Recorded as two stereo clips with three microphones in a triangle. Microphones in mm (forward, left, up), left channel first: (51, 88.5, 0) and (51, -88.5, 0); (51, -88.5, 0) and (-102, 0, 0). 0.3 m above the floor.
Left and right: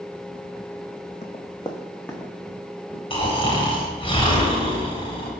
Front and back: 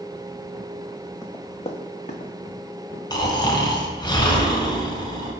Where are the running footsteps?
40° left, 0.8 m; by 3.0 s 5° right, 1.5 m.